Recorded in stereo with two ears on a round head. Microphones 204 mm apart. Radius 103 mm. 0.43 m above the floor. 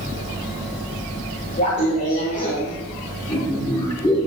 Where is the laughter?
35° left (ahead or behind), 2 m; by 4.3 s 10° left (ahead or behind), 1.3 m.